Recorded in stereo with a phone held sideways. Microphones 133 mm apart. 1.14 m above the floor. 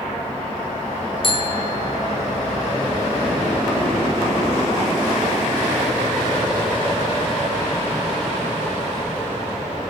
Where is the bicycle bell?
40° left (ahead or behind), 3 m.